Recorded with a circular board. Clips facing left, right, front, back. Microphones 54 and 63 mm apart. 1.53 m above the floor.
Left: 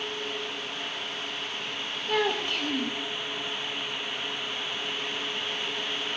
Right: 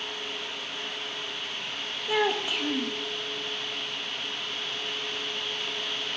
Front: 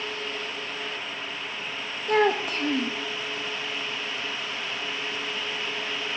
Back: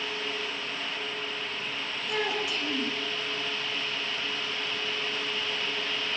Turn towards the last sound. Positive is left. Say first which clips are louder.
# right 1 dB, front 9 dB
turn(degrees=-10)